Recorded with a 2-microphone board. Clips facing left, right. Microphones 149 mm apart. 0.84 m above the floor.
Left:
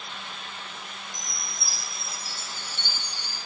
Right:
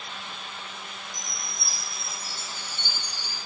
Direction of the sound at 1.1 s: 35° right (ahead or behind).